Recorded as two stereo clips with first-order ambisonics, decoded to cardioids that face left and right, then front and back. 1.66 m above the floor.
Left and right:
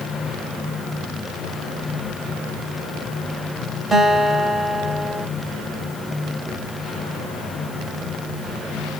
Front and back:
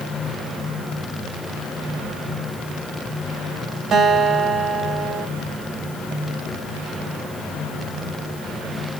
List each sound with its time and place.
3.9 s a guitar: 160° right, 0.8 m